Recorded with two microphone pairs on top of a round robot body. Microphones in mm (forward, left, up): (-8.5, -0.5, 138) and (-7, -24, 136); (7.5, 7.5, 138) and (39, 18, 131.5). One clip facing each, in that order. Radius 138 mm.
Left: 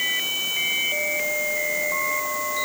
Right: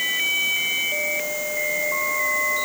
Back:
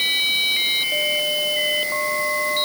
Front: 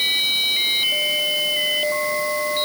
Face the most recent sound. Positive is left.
No sound to turn to.